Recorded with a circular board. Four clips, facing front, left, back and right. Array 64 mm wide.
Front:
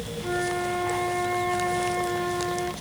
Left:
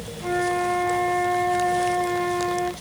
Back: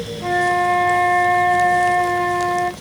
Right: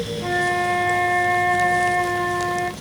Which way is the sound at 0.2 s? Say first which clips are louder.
Right 1 dB, back 10 dB; 150° right.